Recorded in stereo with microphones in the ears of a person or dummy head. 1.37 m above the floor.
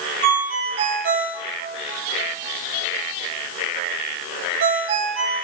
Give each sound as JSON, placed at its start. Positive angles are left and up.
{"t": 0.2, "sound": "a ringtone", "side_deg": -65, "distance_m": 2.5}